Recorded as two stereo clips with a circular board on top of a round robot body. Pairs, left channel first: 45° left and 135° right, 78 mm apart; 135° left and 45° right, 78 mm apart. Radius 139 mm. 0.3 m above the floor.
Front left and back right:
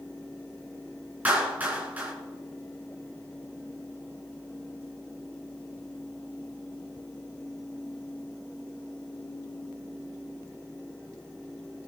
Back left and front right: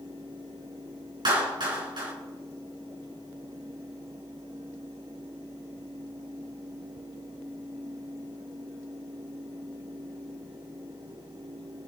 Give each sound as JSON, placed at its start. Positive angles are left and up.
{"t": 1.2, "sound": "a clap", "azimuth_deg": -65, "distance_m": 4.5}